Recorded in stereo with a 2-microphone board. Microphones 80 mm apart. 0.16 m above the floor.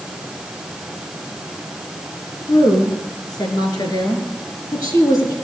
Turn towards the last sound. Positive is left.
turn(degrees=45)  # may be behind; listen again after turning